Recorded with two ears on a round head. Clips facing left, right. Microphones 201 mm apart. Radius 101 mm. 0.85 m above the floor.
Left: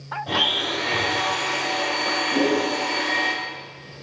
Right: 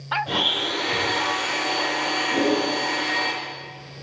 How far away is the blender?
About 4.5 m.